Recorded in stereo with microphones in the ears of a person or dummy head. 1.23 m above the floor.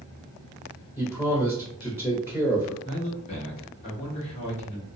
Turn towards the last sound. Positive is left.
turn(degrees=35)  # may be behind; listen again after turning